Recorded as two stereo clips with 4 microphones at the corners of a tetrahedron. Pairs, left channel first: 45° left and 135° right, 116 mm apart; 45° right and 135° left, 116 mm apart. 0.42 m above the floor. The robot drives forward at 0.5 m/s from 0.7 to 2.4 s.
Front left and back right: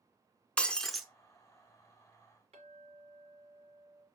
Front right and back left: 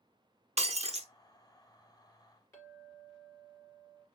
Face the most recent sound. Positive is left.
turn(degrees=-110)